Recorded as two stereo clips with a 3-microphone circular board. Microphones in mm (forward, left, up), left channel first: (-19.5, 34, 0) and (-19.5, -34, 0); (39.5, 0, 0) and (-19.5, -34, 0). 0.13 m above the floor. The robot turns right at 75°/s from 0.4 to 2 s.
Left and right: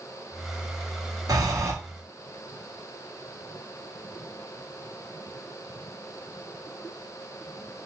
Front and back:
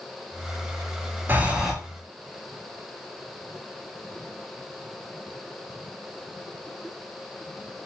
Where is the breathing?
95° right, 0.5 m; by 1.7 s 60° right, 0.5 m.